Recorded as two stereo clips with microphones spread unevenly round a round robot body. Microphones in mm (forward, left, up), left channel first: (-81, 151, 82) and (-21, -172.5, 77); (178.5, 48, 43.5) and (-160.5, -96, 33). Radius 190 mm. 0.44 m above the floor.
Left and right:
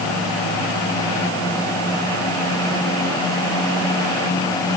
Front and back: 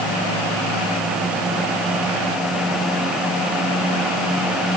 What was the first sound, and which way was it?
Only background noise.